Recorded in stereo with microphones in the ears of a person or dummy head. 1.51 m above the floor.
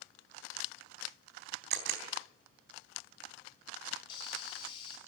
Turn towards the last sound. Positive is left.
turn(degrees=25)  # may be behind; listen again after turning